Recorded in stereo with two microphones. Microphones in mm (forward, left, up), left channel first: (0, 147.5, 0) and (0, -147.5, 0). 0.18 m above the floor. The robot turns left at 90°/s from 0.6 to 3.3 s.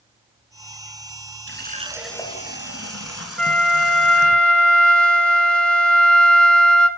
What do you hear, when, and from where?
1.5 s a running tap: 125° right, 1.5 m; by 4.4 s 70° left, 1.5 m
3.4 s a flute: 5° left (ahead or behind), 0.8 m